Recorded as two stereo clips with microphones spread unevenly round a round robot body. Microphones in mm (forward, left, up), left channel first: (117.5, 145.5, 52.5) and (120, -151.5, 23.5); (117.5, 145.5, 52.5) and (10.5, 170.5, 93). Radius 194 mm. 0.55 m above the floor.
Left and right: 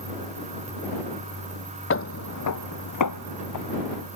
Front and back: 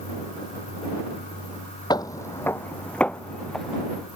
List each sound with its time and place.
1.9 s footsteps: 50° left; by 4.1 s 80° left